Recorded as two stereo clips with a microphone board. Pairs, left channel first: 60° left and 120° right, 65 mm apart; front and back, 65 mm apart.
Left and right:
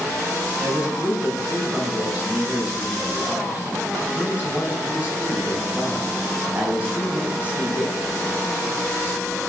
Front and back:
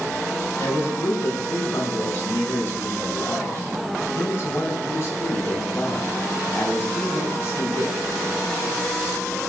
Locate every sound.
0.6 s a man speaking: 50° right, 5 m